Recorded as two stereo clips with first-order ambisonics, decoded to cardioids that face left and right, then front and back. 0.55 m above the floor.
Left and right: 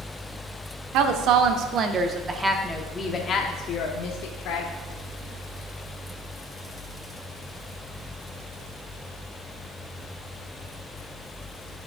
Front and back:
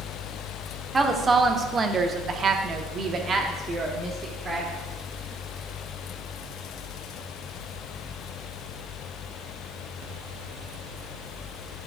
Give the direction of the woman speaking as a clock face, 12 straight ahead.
4 o'clock.